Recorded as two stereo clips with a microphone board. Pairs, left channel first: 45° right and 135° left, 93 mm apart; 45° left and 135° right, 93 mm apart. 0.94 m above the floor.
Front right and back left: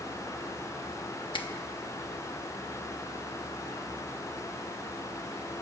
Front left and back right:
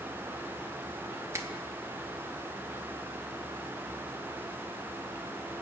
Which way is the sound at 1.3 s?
75° right.